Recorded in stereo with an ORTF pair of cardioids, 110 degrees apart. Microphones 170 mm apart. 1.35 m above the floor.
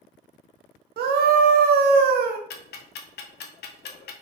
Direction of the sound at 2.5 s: 60° left.